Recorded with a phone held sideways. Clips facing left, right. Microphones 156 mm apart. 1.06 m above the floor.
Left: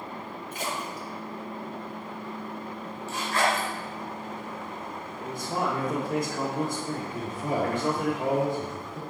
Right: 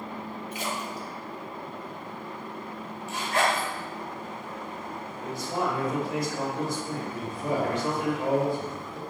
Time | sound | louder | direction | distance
0.5 | a splash | left 1 dB | 50° left (ahead or behind) | 2 m
3.1 | a zipper | even | 20° right (ahead or behind) | 3.5 m
5.2 | a man speaking | even | 55° left (ahead or behind) | 2.0 m
7.1 | a man speaking | right 1 dB | 25° left (ahead or behind) | 2.5 m